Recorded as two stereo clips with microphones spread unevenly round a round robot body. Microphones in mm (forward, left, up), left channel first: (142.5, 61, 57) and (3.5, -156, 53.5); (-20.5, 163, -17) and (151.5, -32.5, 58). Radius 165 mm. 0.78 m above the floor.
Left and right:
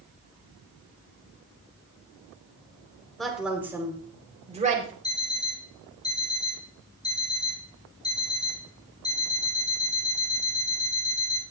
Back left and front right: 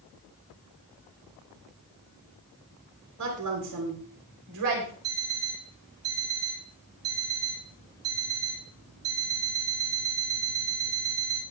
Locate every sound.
3.2 s a woman speaking: 30° right, 3.5 m; by 4.9 s 65° right, 3.5 m
5.0 s an alarm clock: 20° right, 4 m